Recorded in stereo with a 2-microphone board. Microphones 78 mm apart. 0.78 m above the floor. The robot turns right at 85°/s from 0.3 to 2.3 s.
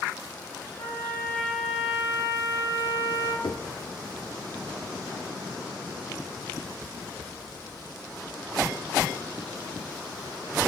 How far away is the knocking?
About 1.1 m.